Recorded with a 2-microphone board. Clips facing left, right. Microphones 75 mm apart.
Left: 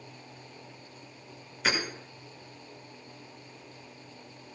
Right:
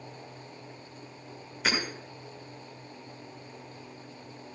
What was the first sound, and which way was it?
Hammering, centre (ahead or behind).